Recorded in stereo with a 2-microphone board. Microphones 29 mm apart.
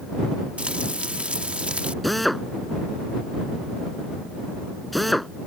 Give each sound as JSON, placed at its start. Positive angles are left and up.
{"t": 0.6, "sound": "frying", "side_deg": -40}
{"t": 2.0, "sound": "a drill", "side_deg": 0}